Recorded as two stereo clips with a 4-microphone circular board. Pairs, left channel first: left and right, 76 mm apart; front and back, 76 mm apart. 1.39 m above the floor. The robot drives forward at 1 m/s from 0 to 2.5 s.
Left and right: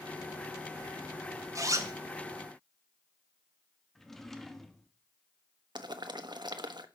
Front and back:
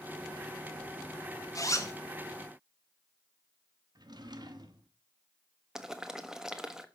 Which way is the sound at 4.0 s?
175° left.